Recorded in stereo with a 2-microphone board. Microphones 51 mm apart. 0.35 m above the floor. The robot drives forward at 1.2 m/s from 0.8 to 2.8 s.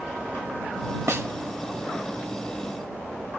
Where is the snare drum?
60° right (ahead or behind), 1.0 m; by 1.3 s 55° right (ahead or behind), 1.1 m.